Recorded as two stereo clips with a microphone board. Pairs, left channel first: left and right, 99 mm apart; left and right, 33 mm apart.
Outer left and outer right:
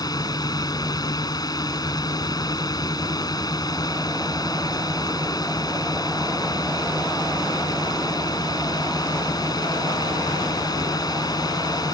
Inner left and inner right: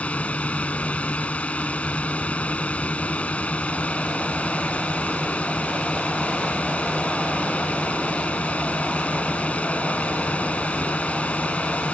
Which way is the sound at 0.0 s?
40° left (ahead or behind).